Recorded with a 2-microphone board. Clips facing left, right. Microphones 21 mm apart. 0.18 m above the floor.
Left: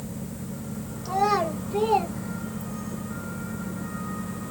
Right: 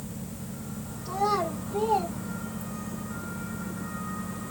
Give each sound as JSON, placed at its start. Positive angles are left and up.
{"t": 1.1, "sound": "a child speaking", "side_deg": 70, "distance_m": 3.0}